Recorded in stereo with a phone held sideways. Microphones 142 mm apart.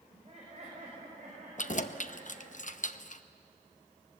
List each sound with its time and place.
0.1 s laughter: 45° right (ahead or behind), 5 m; by 2.6 s 60° right (ahead or behind), 6 m
1.6 s keys jangling: 60° left (ahead or behind), 0.6 m